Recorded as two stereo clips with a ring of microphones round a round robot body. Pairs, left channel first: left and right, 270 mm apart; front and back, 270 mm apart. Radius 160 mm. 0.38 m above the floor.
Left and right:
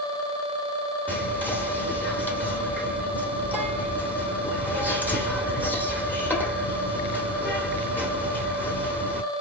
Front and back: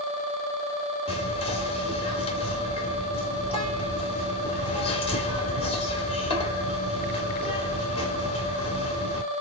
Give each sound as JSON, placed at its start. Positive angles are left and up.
{"t": 1.1, "sound": "whispering", "azimuth_deg": 20, "distance_m": 1.1}